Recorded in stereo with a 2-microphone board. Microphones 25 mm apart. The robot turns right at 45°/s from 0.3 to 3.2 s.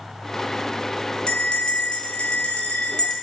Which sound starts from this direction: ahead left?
A bell, at 1.3 s.